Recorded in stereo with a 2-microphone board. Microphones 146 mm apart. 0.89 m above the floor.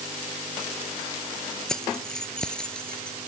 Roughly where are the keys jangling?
Centre.